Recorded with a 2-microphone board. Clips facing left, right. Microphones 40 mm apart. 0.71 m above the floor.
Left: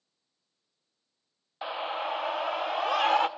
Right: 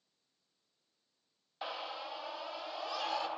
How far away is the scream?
About 0.5 m.